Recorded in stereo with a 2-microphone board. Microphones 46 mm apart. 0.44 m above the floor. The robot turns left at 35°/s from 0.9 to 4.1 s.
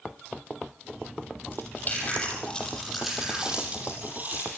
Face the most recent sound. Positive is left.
turn(degrees=-40)  # may be behind; listen again after turning